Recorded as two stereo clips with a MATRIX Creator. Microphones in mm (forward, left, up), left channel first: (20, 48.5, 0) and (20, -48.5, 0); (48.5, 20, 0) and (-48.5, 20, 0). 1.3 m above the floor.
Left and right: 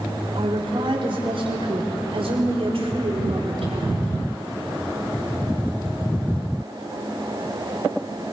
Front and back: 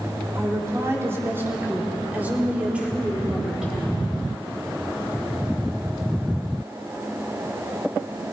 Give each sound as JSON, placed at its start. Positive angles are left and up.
{"t": 0.3, "sound": "a woman speaking", "azimuth_deg": -120, "distance_m": 3.5}